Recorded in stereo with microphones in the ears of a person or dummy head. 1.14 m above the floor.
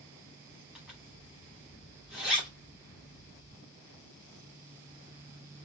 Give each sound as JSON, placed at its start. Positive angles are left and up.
{"t": 0.8, "sound": "a zipper", "side_deg": -5, "distance_m": 1.1}